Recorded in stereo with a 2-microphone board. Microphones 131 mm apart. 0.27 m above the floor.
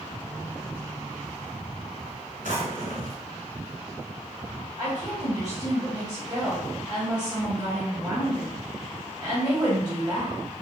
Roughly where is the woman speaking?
Right.